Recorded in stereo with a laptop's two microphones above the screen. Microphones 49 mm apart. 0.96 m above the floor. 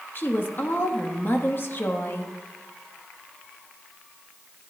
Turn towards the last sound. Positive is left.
turn(degrees=50)  # may be behind; listen again after turning